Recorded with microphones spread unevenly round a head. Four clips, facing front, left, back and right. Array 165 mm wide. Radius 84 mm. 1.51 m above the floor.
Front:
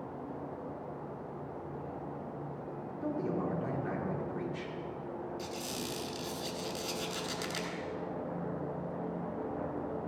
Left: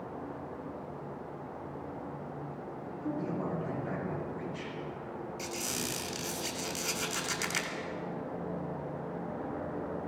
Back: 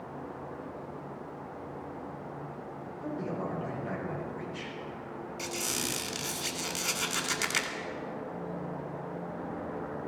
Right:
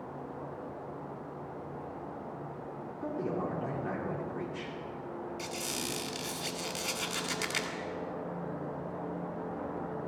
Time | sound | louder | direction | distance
3.0 | a man speaking | right 1 dB, front 1 dB | 70° right | 4 m
5.4 | a squeak | even, back 3 dB | 170° right | 2 m